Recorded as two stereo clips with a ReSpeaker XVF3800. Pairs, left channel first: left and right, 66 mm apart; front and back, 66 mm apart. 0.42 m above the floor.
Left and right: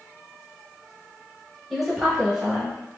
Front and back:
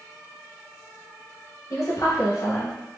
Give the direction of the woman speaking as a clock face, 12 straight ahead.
12 o'clock.